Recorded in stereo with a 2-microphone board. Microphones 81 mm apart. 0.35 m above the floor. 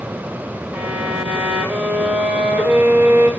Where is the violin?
25° right (ahead or behind), 5 m.